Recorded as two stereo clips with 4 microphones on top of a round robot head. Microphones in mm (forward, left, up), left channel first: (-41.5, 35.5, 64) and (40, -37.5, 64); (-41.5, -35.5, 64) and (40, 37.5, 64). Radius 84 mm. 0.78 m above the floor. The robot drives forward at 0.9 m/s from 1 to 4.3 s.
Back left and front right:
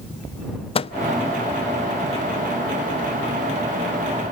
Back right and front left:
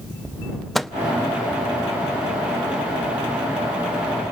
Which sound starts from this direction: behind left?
A microwave, at 0.8 s.